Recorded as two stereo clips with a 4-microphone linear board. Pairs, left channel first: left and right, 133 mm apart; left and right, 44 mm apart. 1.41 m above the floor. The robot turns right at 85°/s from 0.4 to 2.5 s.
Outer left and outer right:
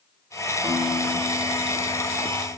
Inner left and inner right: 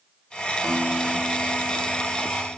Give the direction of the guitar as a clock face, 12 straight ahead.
1 o'clock.